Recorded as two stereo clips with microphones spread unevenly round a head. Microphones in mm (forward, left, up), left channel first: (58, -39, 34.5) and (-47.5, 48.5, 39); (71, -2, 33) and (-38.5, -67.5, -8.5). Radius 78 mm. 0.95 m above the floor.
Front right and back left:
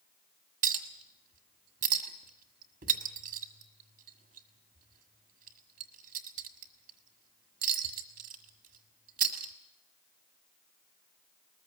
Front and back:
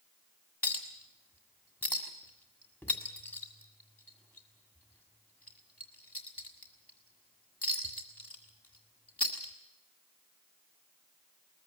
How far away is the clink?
About 1.6 m.